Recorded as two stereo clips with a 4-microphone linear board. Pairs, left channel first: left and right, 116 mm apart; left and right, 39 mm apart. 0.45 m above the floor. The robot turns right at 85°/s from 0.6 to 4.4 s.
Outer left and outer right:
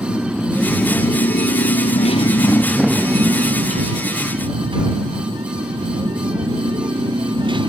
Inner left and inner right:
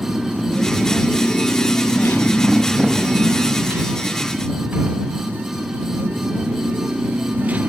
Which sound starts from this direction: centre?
A motorcycle, at 0.0 s.